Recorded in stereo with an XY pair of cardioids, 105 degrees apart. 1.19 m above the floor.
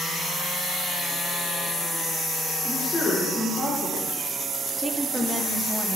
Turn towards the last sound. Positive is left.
turn(degrees=-5)